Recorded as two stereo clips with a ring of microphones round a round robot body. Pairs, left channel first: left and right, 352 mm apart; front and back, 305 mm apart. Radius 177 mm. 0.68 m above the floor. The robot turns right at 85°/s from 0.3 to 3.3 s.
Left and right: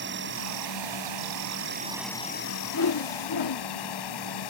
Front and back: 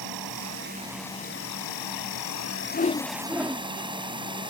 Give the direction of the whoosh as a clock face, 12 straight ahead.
10 o'clock.